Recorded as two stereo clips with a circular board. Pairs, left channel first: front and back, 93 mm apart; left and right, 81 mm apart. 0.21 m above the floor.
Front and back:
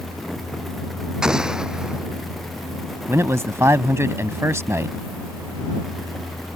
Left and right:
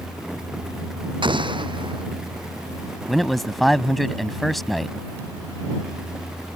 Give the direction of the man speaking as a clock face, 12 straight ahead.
6 o'clock.